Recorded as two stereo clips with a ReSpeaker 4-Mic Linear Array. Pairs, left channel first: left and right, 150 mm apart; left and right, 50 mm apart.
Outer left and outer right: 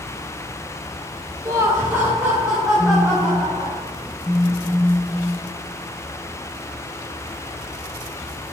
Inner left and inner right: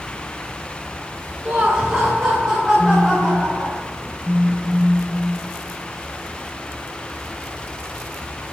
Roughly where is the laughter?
Right.